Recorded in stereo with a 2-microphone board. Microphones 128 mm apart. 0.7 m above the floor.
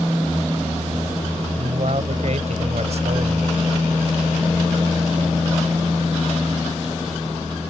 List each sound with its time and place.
1.6 s a man speaking: 60° right (ahead or behind)